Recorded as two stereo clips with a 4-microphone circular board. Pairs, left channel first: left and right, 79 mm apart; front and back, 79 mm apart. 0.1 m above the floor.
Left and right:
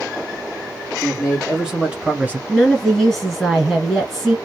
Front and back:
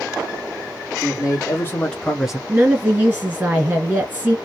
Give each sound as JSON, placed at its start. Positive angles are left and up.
{"t": 1.0, "sound": "a man speaking", "azimuth_deg": 0, "distance_m": 1.6}
{"t": 2.5, "sound": "a woman speaking", "azimuth_deg": 180, "distance_m": 1.7}